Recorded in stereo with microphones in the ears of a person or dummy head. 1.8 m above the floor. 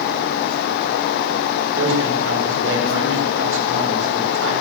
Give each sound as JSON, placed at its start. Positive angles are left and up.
{"t": 1.8, "sound": "a man speaking", "side_deg": -80, "distance_m": 8.0}